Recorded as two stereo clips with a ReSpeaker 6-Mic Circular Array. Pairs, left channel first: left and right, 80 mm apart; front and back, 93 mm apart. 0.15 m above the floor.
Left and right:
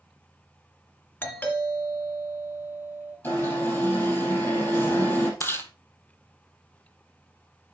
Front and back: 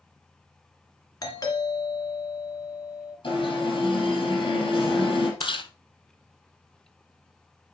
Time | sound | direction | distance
1.2 | a doorbell | 30° left | 3 m
3.2 | an alarm | 30° left | 5 m
5.4 | chewing | 30° left | 1.1 m